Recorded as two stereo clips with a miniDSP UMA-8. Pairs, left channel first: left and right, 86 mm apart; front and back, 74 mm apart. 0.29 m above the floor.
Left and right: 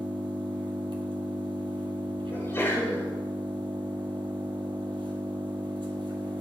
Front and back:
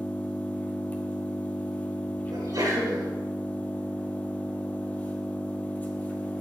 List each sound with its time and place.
0.0 s an engine running: 70° right, 2.0 m
2.3 s a sneeze: 150° left, 5.5 m